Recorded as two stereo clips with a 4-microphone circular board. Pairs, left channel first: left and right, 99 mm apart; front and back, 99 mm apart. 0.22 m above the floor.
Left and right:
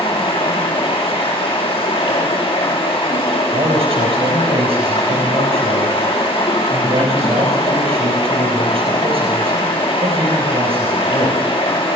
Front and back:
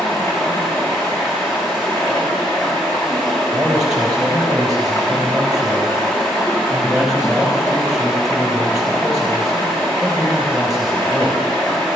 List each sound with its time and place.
0.0 s running water: 70° left, 3.5 m
3.5 s a man speaking: 95° right, 5 m